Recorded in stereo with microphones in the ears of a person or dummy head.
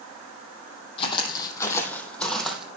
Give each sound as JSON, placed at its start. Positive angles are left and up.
{"t": 1.0, "sound": "footsteps", "side_deg": 30, "distance_m": 2.5}